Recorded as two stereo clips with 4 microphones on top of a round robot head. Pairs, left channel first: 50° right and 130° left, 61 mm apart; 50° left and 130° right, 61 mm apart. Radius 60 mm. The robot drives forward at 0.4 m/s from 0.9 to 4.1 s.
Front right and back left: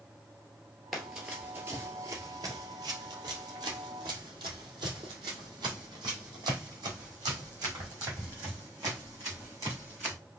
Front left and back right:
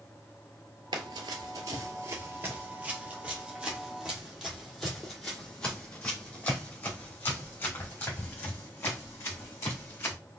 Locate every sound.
0.9 s running footsteps: 140° right, 1.0 m; by 10.1 s 95° left, 4 m